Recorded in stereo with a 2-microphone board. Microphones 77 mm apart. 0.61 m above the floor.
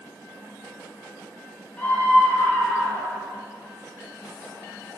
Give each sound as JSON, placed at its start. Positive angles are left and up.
{"t": 1.8, "sound": "a scream", "side_deg": 20, "distance_m": 7.0}